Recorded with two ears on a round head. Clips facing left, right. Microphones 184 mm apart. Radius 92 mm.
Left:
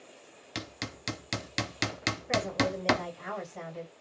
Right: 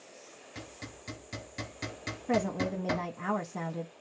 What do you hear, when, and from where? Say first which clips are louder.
0.6 s hammering: left 6 dB; 85° left, 0.5 m
2.3 s a woman speaking: right 1 dB; 80° right, 0.6 m